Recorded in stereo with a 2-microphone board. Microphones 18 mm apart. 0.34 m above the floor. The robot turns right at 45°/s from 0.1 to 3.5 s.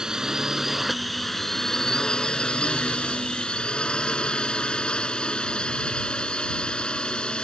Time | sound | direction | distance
0.0 | a drone | 45° right | ?